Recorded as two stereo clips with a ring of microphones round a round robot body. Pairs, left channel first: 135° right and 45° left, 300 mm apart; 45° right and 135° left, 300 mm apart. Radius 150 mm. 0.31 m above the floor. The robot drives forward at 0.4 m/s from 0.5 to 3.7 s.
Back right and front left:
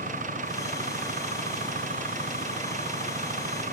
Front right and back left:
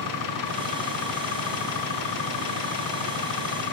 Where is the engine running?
20° right.